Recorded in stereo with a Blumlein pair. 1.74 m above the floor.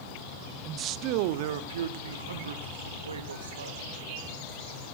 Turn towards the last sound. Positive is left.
turn(degrees=-75)